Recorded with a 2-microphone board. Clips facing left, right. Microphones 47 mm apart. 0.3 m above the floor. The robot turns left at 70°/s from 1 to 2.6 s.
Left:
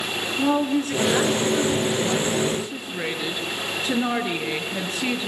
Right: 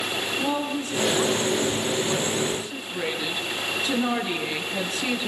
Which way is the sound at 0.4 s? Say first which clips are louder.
Left 8 dB; 130° left.